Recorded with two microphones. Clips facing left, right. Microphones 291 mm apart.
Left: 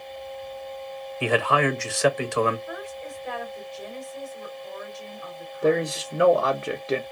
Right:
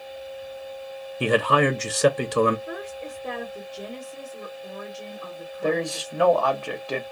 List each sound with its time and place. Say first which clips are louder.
1.2 s a man speaking: right 2 dB; 40° right (ahead or behind), 0.7 m
2.7 s a woman speaking: right 2 dB; 65° right (ahead or behind), 1.4 m
5.6 s a man speaking: left 3 dB; 20° left (ahead or behind), 0.7 m